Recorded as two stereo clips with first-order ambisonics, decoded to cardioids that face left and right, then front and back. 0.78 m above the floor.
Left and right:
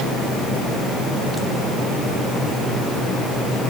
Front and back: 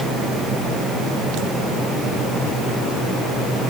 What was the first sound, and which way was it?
Only background noise.